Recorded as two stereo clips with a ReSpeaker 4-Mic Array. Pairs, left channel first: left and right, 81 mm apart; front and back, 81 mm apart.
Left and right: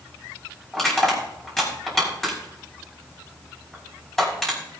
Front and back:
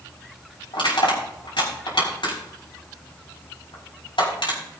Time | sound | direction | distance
0.7 | crushing | 5° left | 6 m